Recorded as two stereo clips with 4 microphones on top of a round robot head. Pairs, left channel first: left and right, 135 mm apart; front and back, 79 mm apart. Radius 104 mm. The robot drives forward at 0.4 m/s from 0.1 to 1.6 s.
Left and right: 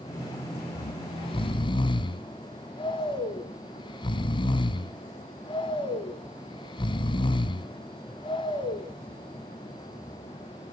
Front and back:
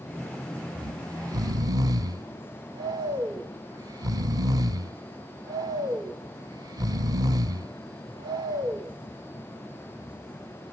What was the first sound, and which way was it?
Snoring, 130° left.